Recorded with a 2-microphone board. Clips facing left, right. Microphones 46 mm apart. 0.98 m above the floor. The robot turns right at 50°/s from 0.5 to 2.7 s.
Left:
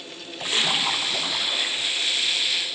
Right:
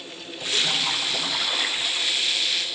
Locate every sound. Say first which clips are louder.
0.4 s a splash: left 1 dB; 145° left, 2.5 m; by 2.2 s 130° right, 2.5 m